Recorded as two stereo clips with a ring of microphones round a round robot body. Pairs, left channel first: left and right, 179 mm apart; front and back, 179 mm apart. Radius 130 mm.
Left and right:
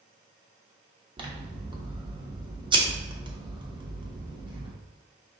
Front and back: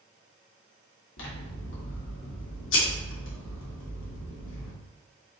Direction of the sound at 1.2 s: 25° right.